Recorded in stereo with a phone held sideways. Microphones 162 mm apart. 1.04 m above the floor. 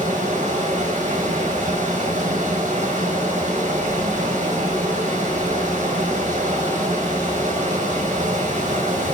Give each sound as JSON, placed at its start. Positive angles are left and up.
{"t": 0.0, "sound": "running water", "side_deg": -50, "distance_m": 4.0}